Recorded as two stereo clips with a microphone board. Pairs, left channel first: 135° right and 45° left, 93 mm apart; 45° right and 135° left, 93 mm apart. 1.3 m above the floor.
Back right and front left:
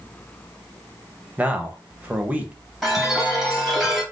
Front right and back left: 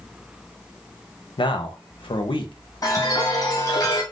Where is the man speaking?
30° right, 0.7 m.